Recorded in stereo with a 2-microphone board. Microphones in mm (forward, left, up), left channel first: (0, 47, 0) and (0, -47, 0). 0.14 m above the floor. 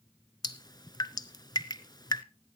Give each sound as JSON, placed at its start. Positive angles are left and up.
{"t": 0.4, "sound": "dripping", "side_deg": 45, "distance_m": 0.7}